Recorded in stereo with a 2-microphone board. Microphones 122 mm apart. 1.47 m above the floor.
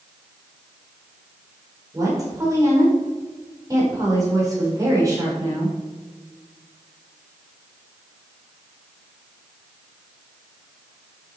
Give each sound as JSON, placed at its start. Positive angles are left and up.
{"t": 1.9, "sound": "a woman speaking", "side_deg": -30, "distance_m": 5.5}